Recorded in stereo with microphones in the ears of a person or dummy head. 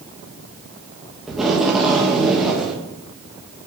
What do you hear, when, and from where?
1.3 s tape being pulled: centre (ahead or behind), 1.8 m